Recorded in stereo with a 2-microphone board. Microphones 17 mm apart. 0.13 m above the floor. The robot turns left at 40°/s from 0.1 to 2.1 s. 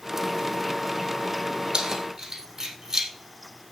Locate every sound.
1.7 s keys jangling: 55° right (ahead or behind), 3 m; by 3.1 s 40° right (ahead or behind), 3 m